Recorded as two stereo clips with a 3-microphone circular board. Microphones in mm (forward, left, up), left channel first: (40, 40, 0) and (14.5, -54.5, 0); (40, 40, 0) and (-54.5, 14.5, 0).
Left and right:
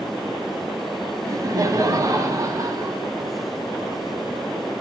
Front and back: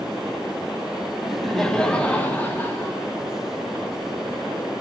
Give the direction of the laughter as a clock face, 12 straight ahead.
3 o'clock.